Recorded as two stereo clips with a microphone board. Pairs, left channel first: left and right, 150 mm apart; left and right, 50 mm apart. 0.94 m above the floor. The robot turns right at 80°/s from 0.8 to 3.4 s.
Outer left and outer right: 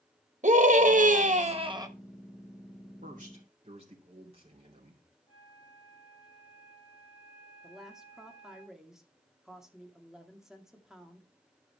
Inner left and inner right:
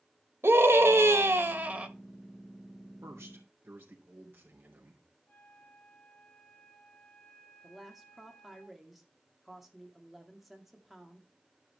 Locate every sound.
0.4 s a scream: 115° right, 1.4 m; by 1.9 s 25° right, 1.4 m
3.0 s a man speaking: 75° right, 3 m; by 5.0 s 45° right, 3 m
5.3 s a flute: 40° left (ahead or behind), 7 m
7.6 s a woman speaking: 5° right (ahead or behind), 1.9 m